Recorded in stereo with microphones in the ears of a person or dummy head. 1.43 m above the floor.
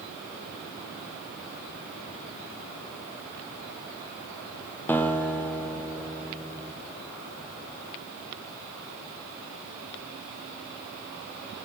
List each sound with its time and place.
4.9 s a guitar: 15° left (ahead or behind), 0.6 m